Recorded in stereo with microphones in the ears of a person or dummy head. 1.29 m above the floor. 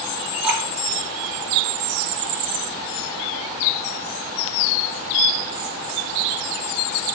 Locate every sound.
0.4 s dripping: 5° right (ahead or behind), 4 m